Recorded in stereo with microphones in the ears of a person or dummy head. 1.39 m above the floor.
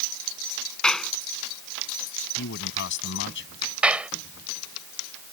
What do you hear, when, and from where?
0.8 s a clap: 5° left (ahead or behind)
2.4 s a man speaking: 65° left (ahead or behind)
3.8 s a clap: 5° right (ahead or behind)